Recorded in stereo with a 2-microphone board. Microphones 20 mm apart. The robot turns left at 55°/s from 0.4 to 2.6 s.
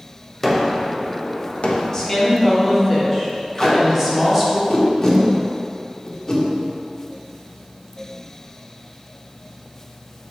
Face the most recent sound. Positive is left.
turn(degrees=15)  # may be behind; listen again after turning